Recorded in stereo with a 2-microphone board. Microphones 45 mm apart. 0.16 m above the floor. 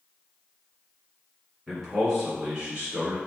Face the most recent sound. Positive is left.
turn(degrees=-15)  # may be behind; listen again after turning